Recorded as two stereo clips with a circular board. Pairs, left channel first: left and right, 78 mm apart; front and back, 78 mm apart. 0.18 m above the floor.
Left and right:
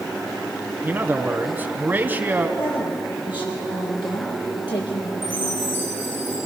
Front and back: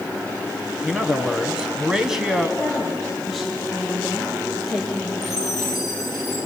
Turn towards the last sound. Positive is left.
turn(degrees=95)